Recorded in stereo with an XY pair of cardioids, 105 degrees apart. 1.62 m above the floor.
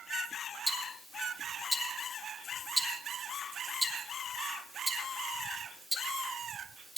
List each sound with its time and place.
0.7 s ticking: 5° right, 2 m